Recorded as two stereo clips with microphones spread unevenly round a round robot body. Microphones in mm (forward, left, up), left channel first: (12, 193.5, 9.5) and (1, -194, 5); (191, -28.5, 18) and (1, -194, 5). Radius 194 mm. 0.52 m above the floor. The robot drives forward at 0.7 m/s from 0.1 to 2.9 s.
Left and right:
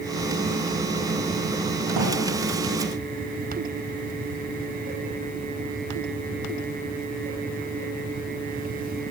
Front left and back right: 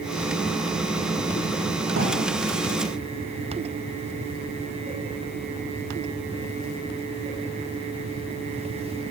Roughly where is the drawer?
Right.